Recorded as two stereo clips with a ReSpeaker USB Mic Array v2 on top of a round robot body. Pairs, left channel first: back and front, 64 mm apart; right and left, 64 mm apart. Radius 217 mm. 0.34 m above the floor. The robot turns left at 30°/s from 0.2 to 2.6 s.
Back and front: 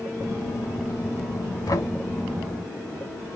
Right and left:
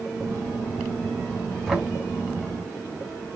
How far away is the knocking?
About 5 m.